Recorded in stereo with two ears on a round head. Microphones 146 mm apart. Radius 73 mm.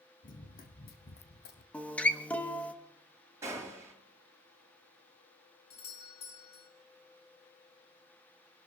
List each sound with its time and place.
0.2 s running footsteps: 55° left (ahead or behind), 2 m; by 1.6 s 70° left (ahead or behind), 1.7 m
1.7 s a guitar: 10° left (ahead or behind), 1.0 m
3.4 s a gunshot: 15° right (ahead or behind), 6.5 m
5.7 s a doorbell: 40° left (ahead or behind), 1.4 m